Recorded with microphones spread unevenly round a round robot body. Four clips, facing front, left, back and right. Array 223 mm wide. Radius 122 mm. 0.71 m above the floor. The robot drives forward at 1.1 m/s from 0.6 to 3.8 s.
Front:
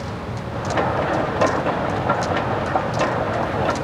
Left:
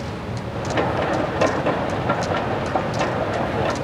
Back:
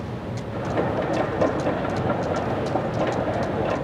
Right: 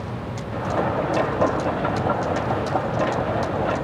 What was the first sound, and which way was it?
Only background noise.